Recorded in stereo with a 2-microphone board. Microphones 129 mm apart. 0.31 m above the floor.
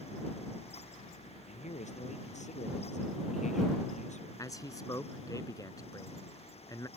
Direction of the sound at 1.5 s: 65° left (ahead or behind).